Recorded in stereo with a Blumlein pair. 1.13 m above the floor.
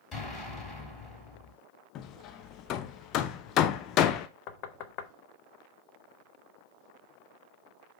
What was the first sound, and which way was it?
An explosion, 20° left.